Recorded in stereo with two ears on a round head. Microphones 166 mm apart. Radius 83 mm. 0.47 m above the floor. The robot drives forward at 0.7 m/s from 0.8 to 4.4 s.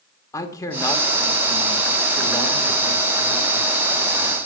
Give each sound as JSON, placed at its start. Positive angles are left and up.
{"t": 0.3, "sound": "a man speaking", "side_deg": 15, "distance_m": 1.0}